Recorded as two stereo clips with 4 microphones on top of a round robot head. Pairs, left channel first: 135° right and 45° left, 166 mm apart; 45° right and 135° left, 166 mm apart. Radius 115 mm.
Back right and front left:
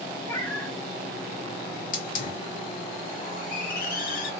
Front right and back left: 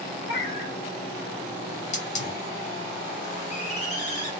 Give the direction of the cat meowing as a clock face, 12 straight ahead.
2 o'clock.